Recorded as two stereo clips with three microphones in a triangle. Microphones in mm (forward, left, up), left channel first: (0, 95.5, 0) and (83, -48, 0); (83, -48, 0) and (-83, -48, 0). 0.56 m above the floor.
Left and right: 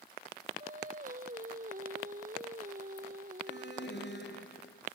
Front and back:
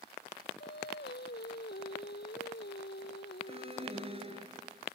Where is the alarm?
125° left.